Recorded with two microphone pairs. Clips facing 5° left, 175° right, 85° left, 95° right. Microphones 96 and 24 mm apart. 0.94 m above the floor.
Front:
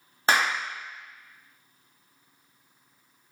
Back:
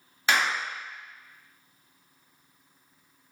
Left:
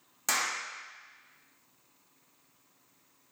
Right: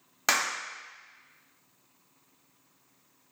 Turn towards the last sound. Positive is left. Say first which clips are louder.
# front 2 dB, right 4 dB
turn(degrees=-50)